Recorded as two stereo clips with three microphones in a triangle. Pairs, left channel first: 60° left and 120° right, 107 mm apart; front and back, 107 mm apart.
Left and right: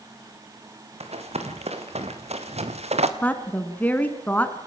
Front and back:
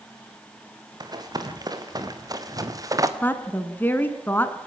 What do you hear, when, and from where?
1.0 s running footsteps: 130° right, 3 m; by 3.1 s 125° right, 1.6 m
3.2 s a woman speaking: 20° left, 1.4 m